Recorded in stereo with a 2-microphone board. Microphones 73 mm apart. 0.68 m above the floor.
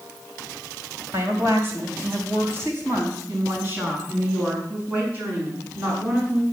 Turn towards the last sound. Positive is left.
turn(degrees=-20)  # may be behind; listen again after turning